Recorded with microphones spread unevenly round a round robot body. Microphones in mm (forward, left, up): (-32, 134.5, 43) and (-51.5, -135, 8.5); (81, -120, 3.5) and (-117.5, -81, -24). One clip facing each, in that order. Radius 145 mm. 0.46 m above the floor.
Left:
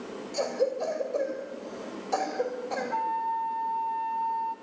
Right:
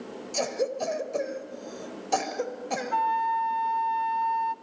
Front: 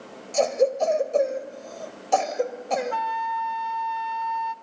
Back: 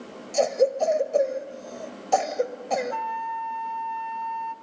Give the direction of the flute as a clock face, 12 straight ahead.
2 o'clock.